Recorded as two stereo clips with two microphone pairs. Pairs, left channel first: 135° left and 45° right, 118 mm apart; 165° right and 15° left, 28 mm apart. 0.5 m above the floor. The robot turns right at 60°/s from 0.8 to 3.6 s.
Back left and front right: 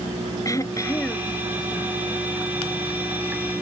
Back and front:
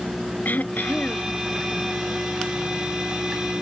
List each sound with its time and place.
0.5 s throat clearing: 165° right; by 1.3 s 130° right